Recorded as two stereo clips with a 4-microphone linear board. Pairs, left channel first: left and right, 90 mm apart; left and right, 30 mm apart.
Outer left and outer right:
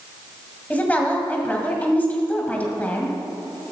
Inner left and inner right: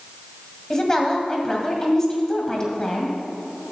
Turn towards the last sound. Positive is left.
turn(degrees=15)  # may be behind; listen again after turning